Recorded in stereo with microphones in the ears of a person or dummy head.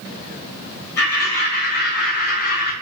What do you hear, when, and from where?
1.0 s laughter: 50° left (ahead or behind), 1.7 m